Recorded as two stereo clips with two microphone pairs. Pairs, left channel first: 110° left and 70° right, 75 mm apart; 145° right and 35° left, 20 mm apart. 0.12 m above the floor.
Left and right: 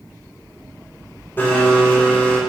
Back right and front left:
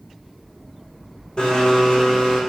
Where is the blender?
175° left, 5 m.